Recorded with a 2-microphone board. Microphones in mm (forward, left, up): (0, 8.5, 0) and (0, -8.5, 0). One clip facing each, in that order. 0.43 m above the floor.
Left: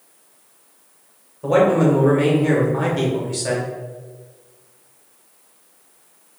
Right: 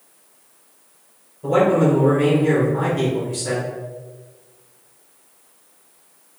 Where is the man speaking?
35° left (ahead or behind), 1.1 m.